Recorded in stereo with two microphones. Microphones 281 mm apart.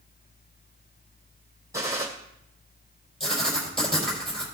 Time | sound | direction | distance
1.7 | a gunshot | 10° right (ahead or behind) | 2.5 m
3.2 | writing | centre (ahead or behind) | 5 m